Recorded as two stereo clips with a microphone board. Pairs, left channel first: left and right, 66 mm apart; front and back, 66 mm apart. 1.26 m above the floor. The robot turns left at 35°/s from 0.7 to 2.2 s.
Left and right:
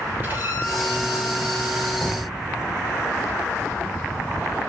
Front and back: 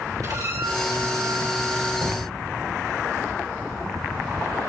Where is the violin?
150° right, 5.5 m; by 1.9 s 170° left, 5.5 m.